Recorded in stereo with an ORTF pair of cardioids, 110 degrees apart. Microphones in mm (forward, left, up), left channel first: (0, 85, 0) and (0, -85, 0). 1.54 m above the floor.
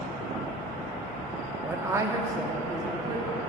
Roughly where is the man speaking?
Ahead.